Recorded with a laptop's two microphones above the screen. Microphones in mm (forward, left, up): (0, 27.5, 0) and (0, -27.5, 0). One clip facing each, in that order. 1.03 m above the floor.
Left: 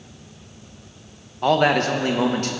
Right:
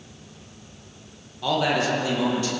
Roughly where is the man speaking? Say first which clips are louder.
Left 5 dB; left.